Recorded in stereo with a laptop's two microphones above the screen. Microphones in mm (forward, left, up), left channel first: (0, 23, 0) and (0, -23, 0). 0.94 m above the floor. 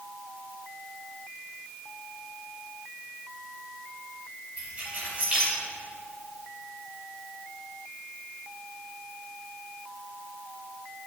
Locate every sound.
4.6 s keys jangling: 30° right (ahead or behind), 3.5 m